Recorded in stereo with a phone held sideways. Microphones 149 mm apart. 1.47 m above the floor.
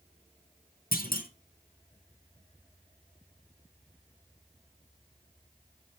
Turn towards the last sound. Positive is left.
turn(degrees=75)  # may be behind; listen again after turning